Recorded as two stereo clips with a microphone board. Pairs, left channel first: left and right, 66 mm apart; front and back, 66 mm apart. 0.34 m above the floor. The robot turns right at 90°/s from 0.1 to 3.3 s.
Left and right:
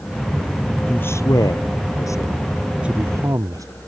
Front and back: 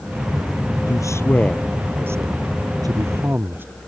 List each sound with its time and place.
0.9 s a man speaking: 15° left; by 3.6 s 125° right